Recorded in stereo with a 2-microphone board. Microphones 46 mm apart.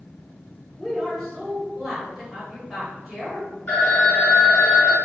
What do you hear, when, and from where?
0.8 s a woman speaking: centre (ahead or behind), 1.3 m
3.7 s a phone ringing: 40° left (ahead or behind), 1.0 m